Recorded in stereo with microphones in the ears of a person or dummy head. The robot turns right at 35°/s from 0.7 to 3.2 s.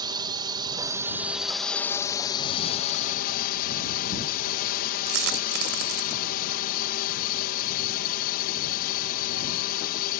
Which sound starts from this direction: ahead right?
A drone, at 0.0 s.